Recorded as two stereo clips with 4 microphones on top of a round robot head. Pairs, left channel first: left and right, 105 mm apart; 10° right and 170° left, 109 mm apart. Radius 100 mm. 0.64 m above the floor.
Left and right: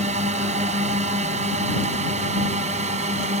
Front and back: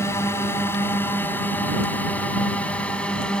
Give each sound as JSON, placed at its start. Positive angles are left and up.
{"t": 0.0, "sound": "a drone", "azimuth_deg": -80}